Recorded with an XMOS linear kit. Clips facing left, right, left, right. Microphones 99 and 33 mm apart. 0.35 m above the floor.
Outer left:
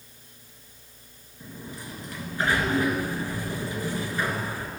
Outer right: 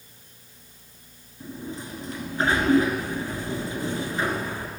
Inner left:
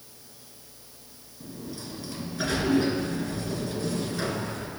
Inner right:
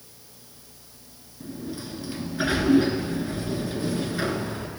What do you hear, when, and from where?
1.4 s a sliding door: 25° right (ahead or behind), 1.2 m